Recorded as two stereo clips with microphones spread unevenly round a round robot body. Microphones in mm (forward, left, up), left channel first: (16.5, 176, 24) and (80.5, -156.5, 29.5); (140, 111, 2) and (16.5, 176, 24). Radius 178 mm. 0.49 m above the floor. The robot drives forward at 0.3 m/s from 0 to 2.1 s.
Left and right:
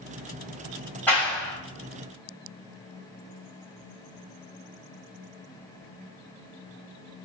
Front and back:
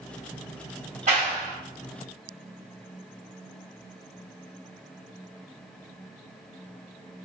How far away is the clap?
About 1.3 m.